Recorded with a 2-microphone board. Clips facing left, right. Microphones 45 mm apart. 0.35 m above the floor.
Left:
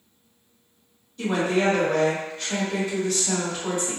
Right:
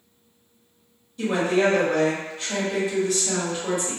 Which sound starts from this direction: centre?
A woman speaking, at 1.2 s.